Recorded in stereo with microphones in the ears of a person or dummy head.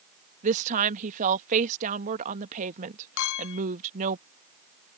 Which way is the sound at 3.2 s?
70° left (ahead or behind).